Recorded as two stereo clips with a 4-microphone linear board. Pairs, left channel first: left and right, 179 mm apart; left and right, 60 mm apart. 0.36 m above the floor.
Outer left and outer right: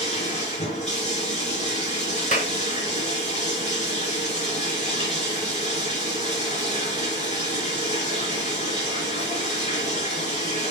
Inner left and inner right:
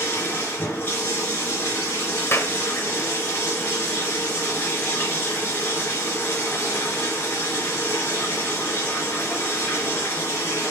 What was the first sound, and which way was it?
Running water, 40° left (ahead or behind).